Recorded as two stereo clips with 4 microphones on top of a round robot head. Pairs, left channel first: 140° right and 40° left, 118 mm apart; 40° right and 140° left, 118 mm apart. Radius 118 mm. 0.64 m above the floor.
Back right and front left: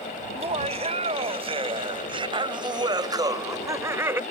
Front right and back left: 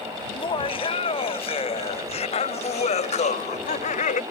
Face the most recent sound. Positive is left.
turn(degrees=-30)